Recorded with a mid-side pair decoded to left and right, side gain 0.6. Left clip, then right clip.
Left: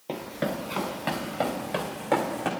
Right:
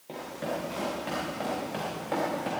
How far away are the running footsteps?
About 4.5 m.